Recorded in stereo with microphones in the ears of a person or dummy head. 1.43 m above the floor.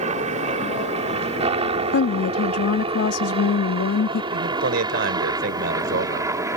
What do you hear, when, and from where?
0.0 s a helicopter: 40° right (ahead or behind); by 6.6 s 20° right (ahead or behind)
1.9 s a woman speaking: 80° left
4.3 s a man speaking: 65° right (ahead or behind)